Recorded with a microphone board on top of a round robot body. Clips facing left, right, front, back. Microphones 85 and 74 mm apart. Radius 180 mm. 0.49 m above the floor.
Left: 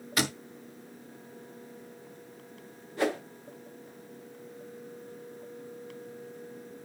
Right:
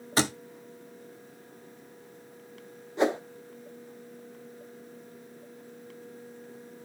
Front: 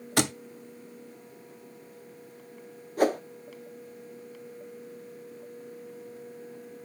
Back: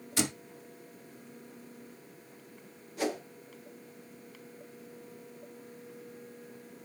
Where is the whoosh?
25° right, 1.2 m.